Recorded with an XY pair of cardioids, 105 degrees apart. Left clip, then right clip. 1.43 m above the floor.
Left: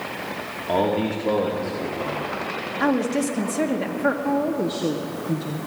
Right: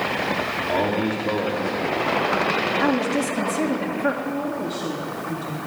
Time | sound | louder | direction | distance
0.7 | a man speaking | left 4 dB | 20° left | 2.5 m
2.8 | a woman speaking | right 1 dB | 20° left | 2.0 m
4.2 | a woman speaking | left 3 dB | 60° left | 1.3 m